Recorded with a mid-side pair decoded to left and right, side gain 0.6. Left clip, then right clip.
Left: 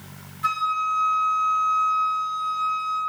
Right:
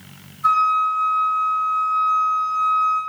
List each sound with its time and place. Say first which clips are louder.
0.4 s a flute: right 7 dB; 50° left, 0.9 m